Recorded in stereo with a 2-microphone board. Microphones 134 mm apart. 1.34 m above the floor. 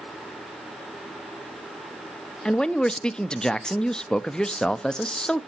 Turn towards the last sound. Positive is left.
turn(degrees=5)  # may be behind; listen again after turning